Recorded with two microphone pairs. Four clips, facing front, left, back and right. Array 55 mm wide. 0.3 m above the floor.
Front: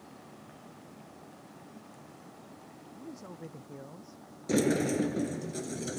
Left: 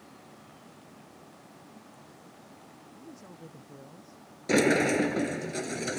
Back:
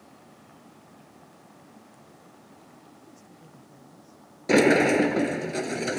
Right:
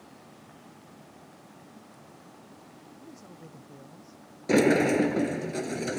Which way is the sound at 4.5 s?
175° left.